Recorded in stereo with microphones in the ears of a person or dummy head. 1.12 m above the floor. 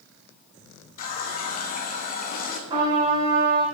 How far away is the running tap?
About 0.7 m.